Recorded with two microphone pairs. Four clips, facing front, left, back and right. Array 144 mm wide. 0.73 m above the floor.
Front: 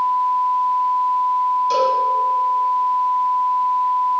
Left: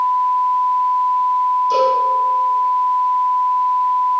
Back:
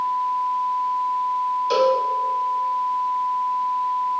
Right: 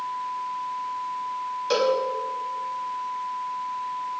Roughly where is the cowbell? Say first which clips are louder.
Left 3 dB, back 3 dB; behind right.